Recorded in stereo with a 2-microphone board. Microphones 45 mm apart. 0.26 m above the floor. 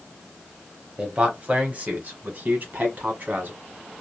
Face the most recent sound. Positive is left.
turn(degrees=-45)  # may be behind; listen again after turning